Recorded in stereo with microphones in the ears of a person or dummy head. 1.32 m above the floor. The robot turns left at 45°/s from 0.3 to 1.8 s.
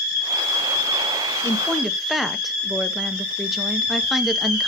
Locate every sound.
1.4 s a woman speaking: 15° left (ahead or behind), 0.8 m; by 4.7 s centre (ahead or behind), 0.8 m